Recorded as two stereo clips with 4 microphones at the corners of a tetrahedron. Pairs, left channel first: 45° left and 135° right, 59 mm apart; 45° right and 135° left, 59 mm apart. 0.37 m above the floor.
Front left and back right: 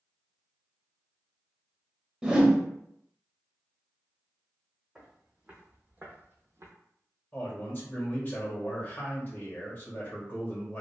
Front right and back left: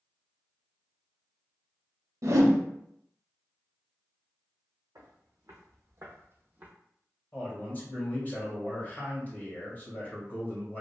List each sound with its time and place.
2.2 s a whoosh: 150° left, 0.6 m
5.0 s footsteps: 145° left, 1.2 m; by 6.7 s 165° right, 0.8 m
7.3 s a man speaking: straight ahead, 1.5 m